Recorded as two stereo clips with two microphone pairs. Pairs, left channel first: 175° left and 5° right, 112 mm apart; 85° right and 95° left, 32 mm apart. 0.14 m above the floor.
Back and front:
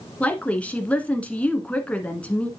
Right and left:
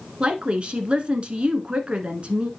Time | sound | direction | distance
0.2 | a woman speaking | 105° left | 1.3 m